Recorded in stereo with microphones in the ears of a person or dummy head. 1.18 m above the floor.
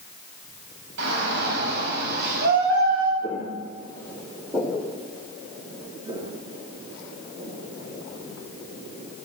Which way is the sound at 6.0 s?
25° right (ahead or behind).